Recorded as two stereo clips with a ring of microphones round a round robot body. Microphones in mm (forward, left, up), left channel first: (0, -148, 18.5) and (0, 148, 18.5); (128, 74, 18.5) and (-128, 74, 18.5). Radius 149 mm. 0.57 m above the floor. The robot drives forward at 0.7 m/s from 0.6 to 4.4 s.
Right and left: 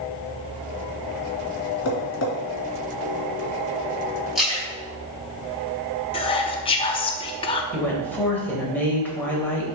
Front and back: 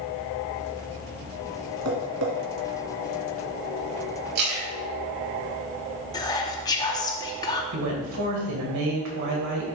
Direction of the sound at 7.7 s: 175° right.